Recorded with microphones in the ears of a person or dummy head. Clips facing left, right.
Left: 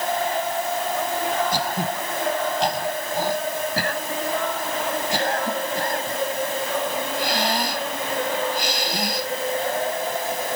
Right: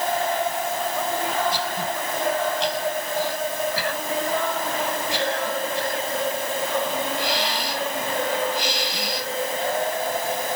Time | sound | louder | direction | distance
1.5 | throat clearing | left 2 dB | 40° left (ahead or behind) | ?